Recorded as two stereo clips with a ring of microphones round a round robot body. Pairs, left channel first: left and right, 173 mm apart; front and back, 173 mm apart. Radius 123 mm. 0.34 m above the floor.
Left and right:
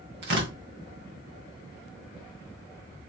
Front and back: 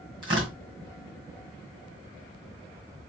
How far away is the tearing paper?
About 2.5 m.